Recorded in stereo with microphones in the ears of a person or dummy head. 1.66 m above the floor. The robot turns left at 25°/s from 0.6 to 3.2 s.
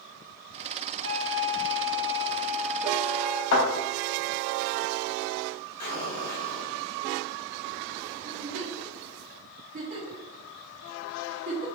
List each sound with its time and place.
1.0 s a flute: 110° right, 0.6 m; by 3.4 s 165° right, 0.6 m
3.5 s a thud: 60° left (ahead or behind), 2.0 m
5.8 s an explosion: 75° left (ahead or behind), 1.8 m
8.2 s a giggle: 40° right (ahead or behind), 0.8 m